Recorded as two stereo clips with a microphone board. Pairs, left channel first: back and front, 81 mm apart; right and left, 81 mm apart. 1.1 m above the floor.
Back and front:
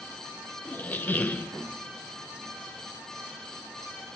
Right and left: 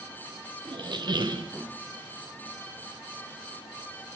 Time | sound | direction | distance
0.7 | a squeak | 115° left | 0.6 m